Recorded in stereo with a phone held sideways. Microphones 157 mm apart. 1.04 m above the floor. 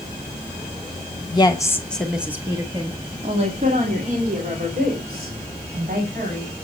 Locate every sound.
1.3 s a woman speaking: 30° left (ahead or behind), 1.3 m; by 6.5 s 70° right (ahead or behind), 4 m